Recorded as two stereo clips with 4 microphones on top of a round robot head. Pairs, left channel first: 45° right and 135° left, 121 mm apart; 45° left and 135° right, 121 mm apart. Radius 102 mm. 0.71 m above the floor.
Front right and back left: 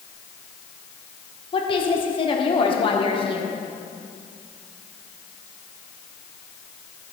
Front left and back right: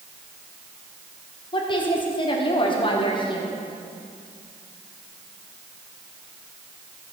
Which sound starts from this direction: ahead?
A woman speaking, at 1.5 s.